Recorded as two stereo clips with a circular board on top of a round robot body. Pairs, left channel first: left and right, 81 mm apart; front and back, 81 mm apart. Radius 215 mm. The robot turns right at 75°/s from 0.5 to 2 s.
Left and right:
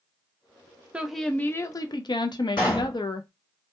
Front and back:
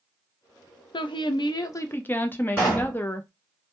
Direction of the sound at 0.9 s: 15° right.